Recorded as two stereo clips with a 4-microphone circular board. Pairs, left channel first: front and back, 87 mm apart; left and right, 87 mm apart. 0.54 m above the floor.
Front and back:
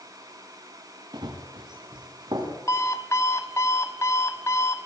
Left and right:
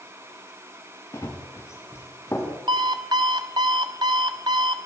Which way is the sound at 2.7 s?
55° right.